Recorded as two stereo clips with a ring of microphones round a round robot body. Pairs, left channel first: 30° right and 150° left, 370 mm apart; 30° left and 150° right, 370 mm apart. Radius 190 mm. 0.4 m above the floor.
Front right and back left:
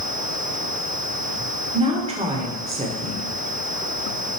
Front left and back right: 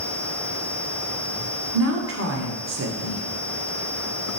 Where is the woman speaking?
150° right, 1.4 m.